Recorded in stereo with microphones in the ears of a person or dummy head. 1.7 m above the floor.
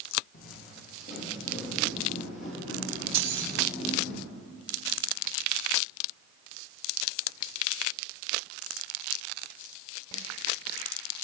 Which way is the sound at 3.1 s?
70° right (ahead or behind).